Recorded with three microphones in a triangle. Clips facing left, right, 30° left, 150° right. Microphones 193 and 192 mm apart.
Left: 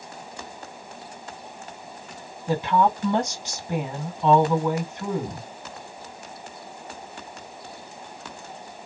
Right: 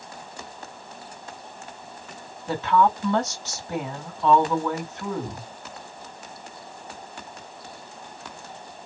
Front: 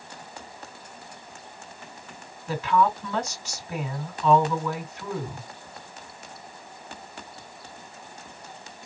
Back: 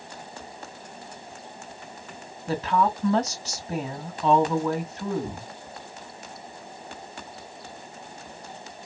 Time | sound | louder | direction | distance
2.5 | a woman speaking | even, front 1 dB | 165° left | 2.5 m